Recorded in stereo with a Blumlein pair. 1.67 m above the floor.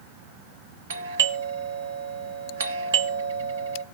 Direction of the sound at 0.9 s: 65° right.